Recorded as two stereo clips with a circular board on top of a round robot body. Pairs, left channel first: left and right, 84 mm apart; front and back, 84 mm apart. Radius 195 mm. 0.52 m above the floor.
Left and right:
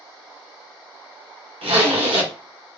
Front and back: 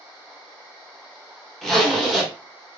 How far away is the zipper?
About 1.1 m.